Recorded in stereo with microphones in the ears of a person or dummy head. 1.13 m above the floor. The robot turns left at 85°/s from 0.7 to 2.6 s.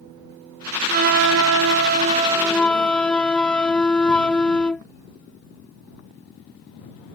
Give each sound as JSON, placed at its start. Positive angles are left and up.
{"t": 0.9, "sound": "a flute", "azimuth_deg": -35}